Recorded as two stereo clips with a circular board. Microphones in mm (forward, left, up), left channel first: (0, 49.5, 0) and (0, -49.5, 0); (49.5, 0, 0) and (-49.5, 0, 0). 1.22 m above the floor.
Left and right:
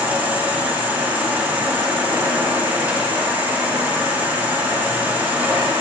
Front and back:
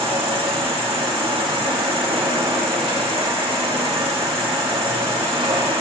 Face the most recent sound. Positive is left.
turn(degrees=-165)